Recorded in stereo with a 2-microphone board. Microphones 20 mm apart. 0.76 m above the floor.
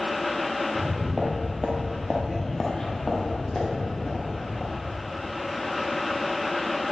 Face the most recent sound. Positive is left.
turn(degrees=70)  # may be behind; listen again after turning